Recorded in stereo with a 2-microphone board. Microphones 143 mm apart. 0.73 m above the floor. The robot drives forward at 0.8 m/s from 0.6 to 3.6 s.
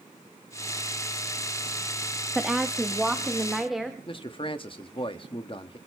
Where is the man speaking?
40° left (ahead or behind), 1.3 m.